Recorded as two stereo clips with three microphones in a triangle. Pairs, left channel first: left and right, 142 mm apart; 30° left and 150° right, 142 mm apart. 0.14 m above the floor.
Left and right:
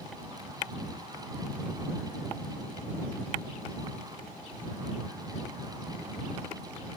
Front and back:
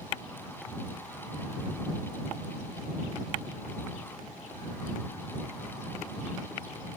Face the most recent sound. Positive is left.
No sound to turn to.